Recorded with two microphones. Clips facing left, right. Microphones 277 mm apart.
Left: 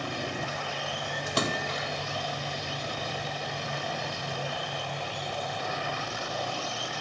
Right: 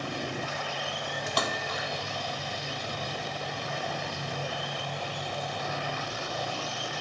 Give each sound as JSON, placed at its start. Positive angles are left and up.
{"t": 1.3, "sound": "a splash", "side_deg": 30}